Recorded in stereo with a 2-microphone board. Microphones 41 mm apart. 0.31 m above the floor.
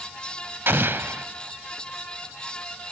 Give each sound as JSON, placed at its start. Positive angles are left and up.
{"t": 0.7, "sound": "an explosion", "side_deg": -60, "distance_m": 0.7}